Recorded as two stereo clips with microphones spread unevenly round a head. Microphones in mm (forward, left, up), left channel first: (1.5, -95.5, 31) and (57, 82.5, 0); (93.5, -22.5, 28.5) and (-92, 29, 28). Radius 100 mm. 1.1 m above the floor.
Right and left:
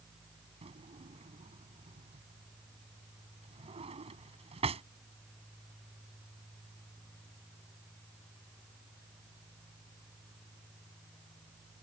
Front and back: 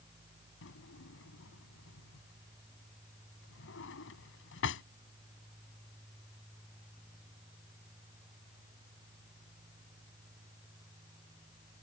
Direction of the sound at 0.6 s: 10° left.